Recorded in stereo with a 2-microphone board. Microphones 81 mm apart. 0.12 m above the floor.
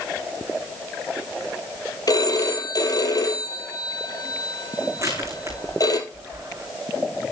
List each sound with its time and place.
2.1 s a phone ringing: 50° left (ahead or behind), 2 m
5.0 s crushing: 40° right (ahead or behind), 5.5 m